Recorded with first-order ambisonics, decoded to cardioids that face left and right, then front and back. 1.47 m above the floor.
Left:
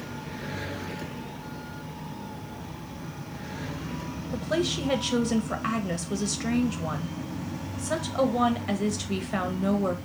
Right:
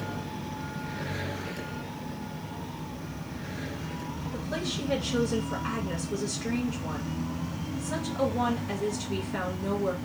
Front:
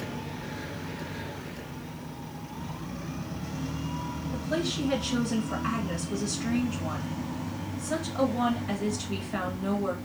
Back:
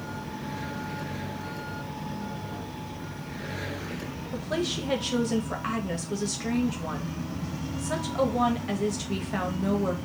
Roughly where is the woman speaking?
Behind left.